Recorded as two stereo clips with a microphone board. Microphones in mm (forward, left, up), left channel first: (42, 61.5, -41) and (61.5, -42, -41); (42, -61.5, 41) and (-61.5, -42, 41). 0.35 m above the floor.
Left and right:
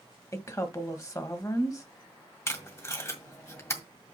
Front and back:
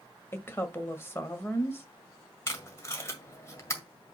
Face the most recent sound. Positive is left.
turn(degrees=45)